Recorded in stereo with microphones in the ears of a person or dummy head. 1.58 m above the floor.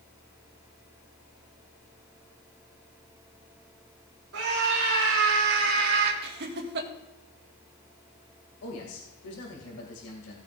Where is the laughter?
60° right (ahead or behind), 1.7 m.